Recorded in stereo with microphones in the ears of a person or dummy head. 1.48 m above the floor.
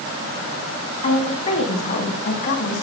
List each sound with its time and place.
1.0 s a woman speaking: 35° left (ahead or behind), 5 m; by 2.8 s 50° left (ahead or behind), 4 m